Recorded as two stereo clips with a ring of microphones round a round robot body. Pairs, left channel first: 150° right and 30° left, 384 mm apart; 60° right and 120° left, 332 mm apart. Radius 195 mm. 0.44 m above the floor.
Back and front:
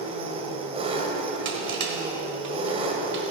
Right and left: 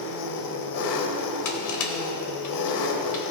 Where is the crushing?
30° right, 1.6 m.